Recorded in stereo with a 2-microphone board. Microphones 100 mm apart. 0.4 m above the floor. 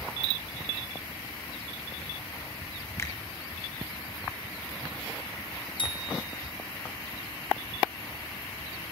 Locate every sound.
3.0 s a finger snap: 25° left (ahead or behind), 4 m
5.8 s a bicycle bell: 55° left (ahead or behind), 3.5 m